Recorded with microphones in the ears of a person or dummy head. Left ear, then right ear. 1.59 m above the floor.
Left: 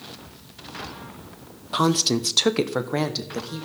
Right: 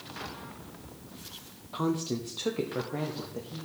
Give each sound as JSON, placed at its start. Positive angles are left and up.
{"t": 1.7, "sound": "a woman speaking", "side_deg": 40, "distance_m": 0.5}